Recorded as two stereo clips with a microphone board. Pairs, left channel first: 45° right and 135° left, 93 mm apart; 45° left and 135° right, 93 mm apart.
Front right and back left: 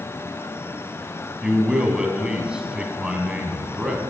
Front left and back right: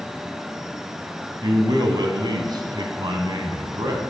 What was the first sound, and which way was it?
A man speaking, 145° right.